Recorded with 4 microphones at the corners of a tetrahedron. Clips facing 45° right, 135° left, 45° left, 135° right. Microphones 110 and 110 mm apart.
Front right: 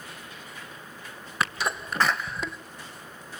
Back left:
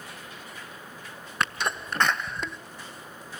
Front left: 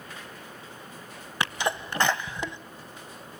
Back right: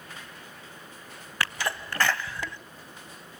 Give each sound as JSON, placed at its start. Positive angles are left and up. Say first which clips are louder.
{"t": 1.4, "sound": "a sneeze", "louder": "even, front left 2 dB", "azimuth_deg": 40, "distance_m": 1.0}